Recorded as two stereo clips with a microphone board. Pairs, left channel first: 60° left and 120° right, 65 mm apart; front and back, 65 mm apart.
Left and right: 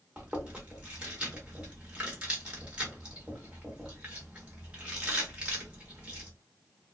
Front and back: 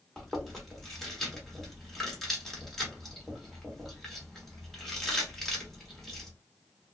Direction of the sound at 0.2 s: 75° right.